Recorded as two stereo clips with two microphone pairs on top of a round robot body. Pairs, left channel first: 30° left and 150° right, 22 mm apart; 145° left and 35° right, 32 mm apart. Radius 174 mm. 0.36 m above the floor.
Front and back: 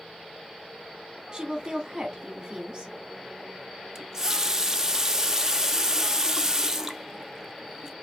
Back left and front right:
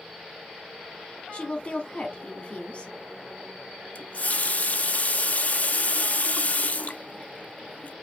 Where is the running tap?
145° left, 0.7 m.